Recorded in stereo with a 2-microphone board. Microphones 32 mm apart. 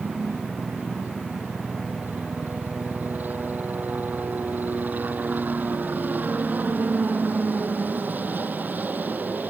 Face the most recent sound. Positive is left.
turn(degrees=-70)  # may be behind; listen again after turning